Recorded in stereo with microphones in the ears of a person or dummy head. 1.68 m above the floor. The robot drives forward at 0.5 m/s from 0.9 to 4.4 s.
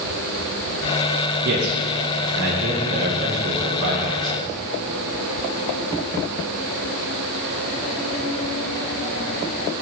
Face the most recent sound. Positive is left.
turn(degrees=-40)  # may be behind; listen again after turning